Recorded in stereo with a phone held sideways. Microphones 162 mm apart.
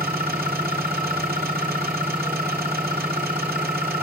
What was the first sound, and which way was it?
An engine running, 70° right (ahead or behind).